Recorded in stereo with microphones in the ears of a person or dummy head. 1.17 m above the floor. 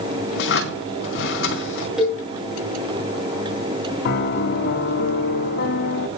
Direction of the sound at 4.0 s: 55° left (ahead or behind).